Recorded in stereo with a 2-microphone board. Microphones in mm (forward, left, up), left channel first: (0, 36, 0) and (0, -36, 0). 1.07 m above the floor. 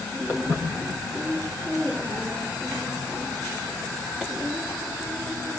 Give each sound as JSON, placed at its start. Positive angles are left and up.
{"t": 0.3, "sound": "footsteps", "side_deg": -30, "distance_m": 8.0}